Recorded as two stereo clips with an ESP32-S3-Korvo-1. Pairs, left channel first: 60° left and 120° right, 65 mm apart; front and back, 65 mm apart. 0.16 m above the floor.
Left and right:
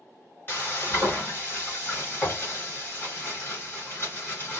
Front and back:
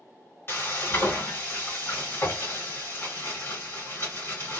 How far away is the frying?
About 1.9 m.